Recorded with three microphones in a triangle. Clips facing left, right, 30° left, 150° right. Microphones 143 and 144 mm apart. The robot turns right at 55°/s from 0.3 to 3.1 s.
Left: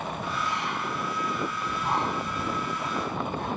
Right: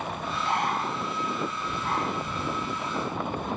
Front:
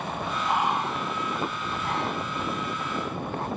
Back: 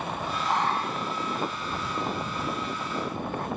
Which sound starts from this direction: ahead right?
Breathing, at 0.5 s.